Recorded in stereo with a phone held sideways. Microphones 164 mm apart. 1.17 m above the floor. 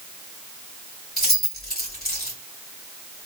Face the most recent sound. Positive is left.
turn(degrees=65)  # may be behind; listen again after turning